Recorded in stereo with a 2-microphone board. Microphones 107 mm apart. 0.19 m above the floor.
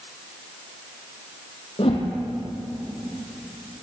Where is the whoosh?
60° left (ahead or behind), 5 m.